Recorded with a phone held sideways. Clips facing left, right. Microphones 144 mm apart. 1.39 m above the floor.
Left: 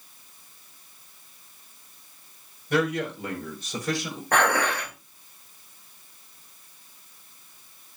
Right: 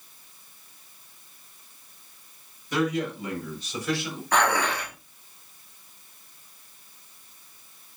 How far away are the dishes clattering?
About 4 m.